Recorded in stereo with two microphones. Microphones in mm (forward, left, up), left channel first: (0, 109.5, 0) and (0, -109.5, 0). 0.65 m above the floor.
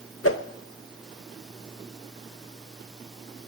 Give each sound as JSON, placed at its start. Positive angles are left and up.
{"t": 0.2, "sound": "a whoosh", "side_deg": 80, "distance_m": 0.8}